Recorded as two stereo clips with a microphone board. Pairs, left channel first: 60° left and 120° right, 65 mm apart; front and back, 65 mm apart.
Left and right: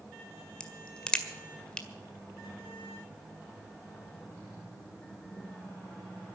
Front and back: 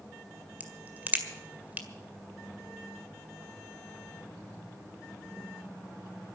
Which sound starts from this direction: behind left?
A crack, at 0.6 s.